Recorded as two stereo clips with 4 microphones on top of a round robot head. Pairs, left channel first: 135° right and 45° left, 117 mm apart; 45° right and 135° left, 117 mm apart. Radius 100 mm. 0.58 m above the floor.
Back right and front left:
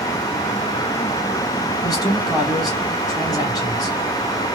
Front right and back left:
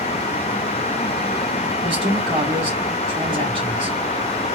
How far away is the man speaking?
About 1.7 m.